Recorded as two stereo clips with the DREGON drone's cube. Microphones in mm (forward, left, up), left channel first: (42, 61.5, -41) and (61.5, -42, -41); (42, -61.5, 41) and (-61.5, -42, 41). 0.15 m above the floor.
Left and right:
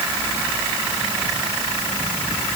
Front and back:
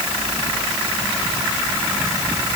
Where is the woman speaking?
I don't hear a woman speaking.